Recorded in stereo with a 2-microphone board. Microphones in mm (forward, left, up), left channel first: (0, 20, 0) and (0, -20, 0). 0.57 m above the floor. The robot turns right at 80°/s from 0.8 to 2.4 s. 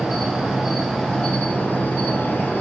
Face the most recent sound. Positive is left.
turn(degrees=120)